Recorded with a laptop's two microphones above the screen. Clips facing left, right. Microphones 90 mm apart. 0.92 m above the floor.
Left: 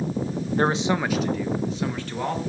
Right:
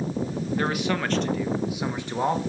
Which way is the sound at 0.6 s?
35° left (ahead or behind).